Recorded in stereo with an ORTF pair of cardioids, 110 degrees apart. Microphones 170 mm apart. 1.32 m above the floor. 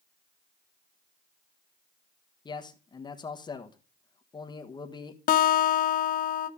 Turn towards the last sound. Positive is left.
turn(degrees=55)